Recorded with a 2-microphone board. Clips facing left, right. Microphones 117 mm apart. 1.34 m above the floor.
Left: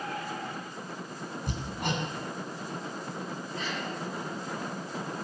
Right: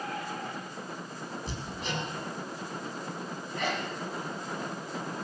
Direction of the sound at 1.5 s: 60° left (ahead or behind).